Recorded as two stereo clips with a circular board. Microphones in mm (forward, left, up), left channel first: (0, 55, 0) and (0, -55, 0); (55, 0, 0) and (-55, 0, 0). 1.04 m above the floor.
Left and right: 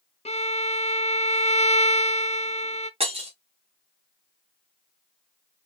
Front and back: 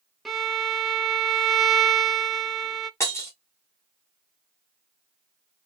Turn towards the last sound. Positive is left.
turn(degrees=-65)